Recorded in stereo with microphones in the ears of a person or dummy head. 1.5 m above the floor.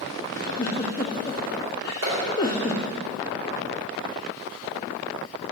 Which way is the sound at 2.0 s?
55° right (ahead or behind).